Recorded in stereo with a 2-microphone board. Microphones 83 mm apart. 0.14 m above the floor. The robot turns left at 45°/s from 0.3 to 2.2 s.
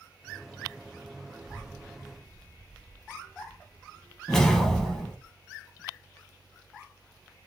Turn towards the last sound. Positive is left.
turn(degrees=5)  # may be behind; listen again after turning